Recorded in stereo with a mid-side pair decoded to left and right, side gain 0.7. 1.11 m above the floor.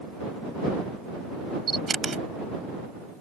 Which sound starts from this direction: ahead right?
A camera shutter, at 1.7 s.